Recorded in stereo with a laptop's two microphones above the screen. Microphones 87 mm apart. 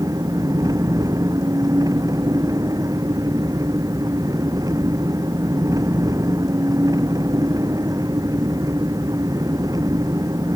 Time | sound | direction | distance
0.0 | an engine running | 45° right (ahead or behind) | ?